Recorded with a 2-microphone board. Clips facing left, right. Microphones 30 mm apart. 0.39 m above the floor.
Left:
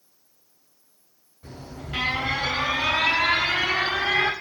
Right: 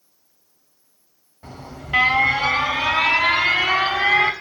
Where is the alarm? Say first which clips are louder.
Right 2 dB; 65° right (ahead or behind), 4 m.